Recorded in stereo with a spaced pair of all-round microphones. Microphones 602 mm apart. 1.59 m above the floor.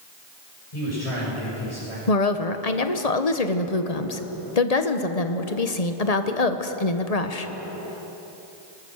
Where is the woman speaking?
85° left, 1.3 m.